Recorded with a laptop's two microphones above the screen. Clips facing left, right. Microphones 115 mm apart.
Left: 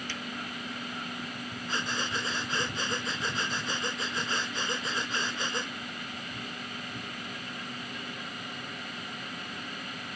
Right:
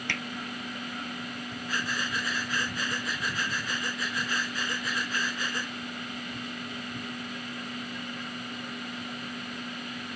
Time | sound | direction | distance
0.1 | hammering | 65° right (ahead or behind) | ?
1.7 | breathing | 25° left (ahead or behind) | ?